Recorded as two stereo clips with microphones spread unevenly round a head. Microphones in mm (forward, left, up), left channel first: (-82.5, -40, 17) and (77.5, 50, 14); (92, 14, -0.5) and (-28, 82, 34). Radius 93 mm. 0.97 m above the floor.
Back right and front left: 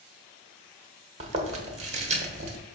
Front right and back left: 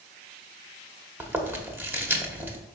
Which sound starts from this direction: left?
Chewing, at 1.2 s.